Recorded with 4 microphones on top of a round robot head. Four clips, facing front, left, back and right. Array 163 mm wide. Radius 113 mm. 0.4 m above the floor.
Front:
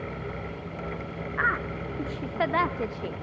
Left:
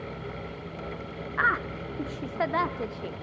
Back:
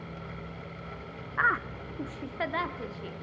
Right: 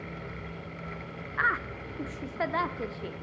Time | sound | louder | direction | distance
1.4 | a woman speaking | left 3 dB, even | 120° left | 0.8 m